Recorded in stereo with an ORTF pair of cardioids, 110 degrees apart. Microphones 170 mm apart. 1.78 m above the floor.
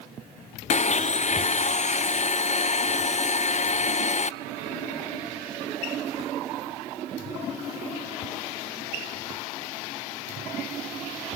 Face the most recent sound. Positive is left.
turn(degrees=45)